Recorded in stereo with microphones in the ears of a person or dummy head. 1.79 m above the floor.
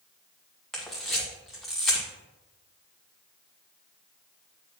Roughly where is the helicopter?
I don't hear a helicopter.